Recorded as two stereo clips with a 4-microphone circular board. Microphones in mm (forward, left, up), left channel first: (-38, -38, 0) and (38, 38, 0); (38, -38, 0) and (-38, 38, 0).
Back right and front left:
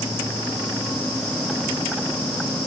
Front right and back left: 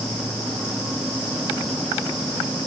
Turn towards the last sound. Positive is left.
No sound to turn to.